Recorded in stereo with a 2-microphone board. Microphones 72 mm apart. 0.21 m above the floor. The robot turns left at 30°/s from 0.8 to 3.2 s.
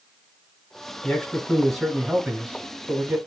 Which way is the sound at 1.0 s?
30° left.